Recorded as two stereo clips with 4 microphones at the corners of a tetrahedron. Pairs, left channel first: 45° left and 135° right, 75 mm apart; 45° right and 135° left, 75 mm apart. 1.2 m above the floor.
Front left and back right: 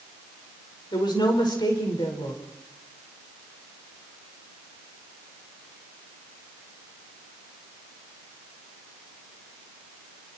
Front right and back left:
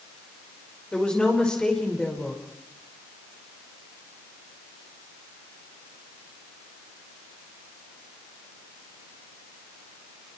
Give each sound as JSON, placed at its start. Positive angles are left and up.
{"t": 0.9, "sound": "a woman speaking", "azimuth_deg": 35, "distance_m": 5.0}